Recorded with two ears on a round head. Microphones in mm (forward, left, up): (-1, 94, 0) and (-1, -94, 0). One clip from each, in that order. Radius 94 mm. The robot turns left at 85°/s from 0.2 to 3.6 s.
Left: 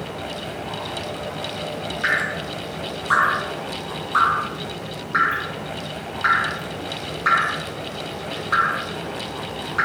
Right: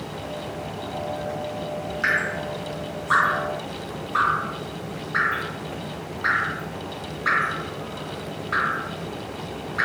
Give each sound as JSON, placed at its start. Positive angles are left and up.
{"t": 2.0, "sound": "dripping", "side_deg": -20, "distance_m": 1.3}